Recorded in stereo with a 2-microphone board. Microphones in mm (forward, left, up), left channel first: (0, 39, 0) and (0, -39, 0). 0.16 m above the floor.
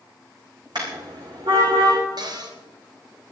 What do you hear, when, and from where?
0.8 s a car horn: 65° right (ahead or behind), 5 m; by 2.0 s 80° right, 6 m
2.2 s a cupboard door: 60° right (ahead or behind), 2 m